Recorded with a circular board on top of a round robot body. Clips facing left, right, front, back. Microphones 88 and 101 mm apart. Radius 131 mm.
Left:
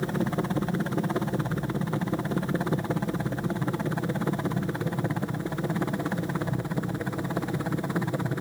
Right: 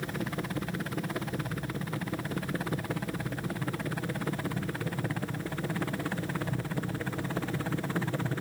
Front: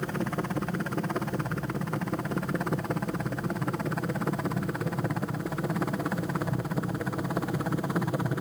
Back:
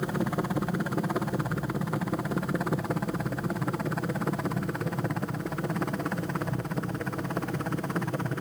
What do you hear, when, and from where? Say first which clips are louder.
0.0 s a helicopter: left 7 dB, back 2 dB; 110° left; by 8.4 s 60° left